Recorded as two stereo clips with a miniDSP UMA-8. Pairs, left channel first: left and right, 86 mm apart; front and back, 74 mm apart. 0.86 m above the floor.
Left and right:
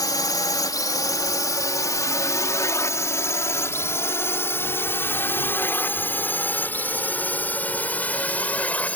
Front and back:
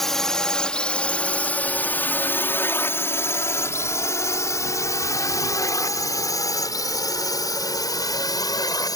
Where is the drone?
85° left; by 9.0 s 20° left.